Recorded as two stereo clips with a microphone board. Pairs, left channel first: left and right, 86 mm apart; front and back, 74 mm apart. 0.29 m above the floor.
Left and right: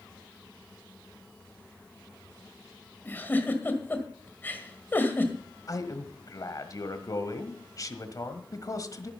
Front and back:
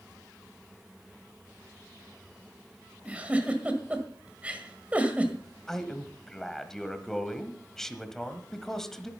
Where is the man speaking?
80° left, 1.4 m.